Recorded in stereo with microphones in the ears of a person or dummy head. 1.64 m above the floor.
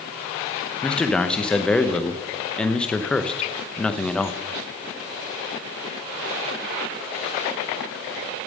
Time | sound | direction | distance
0.8 | a man speaking | 5° left (ahead or behind) | 0.7 m